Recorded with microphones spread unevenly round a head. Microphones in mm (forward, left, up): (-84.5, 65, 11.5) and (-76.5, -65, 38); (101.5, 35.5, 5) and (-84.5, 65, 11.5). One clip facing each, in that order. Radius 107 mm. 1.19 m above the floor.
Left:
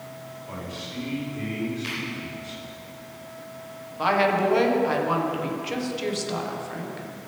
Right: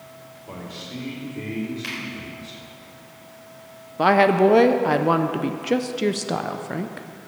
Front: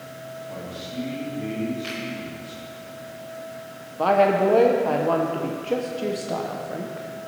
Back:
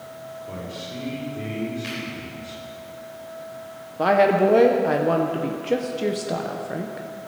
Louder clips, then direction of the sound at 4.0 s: Right 6 dB, back 1 dB; 110° right.